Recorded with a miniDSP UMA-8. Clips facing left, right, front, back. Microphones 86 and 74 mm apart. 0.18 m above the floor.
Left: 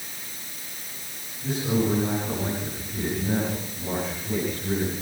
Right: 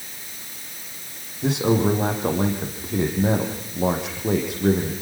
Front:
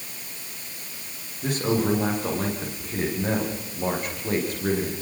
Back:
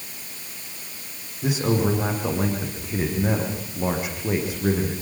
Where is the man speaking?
95° right, 9 m.